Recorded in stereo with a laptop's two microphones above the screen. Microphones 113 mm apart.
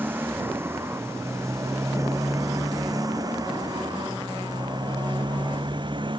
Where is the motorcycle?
20° right (ahead or behind); by 6.2 s 45° right (ahead or behind).